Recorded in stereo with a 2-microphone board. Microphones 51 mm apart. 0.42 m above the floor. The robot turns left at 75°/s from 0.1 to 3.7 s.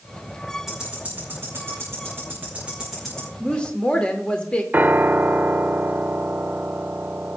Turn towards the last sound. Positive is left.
turn(degrees=-40)  # may be behind; listen again after turning